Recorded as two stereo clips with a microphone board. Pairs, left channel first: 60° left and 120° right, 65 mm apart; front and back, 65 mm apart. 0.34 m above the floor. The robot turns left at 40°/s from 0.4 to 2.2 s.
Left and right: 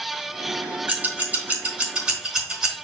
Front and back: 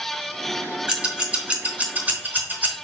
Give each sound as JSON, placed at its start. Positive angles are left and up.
{"t": 0.9, "sound": "scissors", "azimuth_deg": -125, "distance_m": 1.2}